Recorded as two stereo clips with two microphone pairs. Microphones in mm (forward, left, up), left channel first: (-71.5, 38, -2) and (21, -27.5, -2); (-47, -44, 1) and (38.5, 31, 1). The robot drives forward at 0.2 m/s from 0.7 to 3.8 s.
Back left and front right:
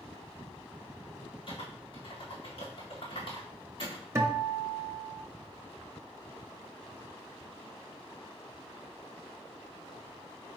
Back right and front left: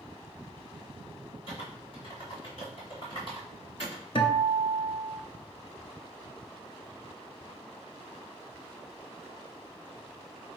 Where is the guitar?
100° right, 0.8 m.